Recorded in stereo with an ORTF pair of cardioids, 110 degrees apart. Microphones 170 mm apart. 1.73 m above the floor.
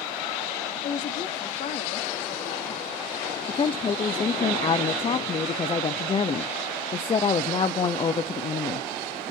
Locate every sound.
0.8 s a woman speaking: 50° left, 2.5 m
3.5 s a woman speaking: 30° left, 0.8 m